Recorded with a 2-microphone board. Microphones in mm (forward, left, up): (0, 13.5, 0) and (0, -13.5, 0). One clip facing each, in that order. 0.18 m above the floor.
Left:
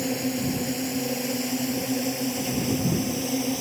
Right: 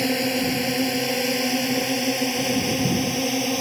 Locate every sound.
0.0 s a drone: 55° right (ahead or behind); by 3.6 s 45° right (ahead or behind)